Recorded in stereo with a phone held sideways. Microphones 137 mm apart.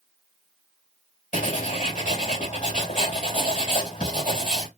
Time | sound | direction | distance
1.3 | writing | 65° left (ahead or behind) | 3 m